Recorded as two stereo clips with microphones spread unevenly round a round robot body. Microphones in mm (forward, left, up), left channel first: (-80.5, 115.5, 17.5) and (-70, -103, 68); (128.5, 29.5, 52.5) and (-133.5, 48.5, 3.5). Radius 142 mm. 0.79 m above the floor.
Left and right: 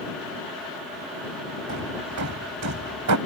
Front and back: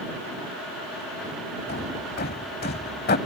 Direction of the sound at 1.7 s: 60° right.